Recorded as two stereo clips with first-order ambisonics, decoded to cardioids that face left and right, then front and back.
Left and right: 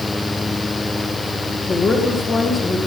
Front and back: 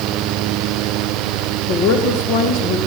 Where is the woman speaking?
15° left, 2.0 m.